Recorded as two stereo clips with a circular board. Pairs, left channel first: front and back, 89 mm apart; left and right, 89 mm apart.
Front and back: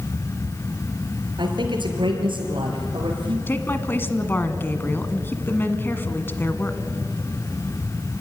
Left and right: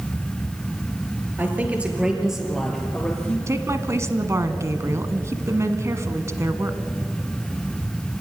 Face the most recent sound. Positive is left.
turn(degrees=-55)